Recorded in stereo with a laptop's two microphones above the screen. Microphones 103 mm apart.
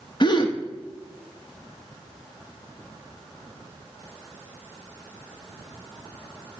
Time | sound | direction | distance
0.2 | a gasp | 45° left (ahead or behind) | 1.0 m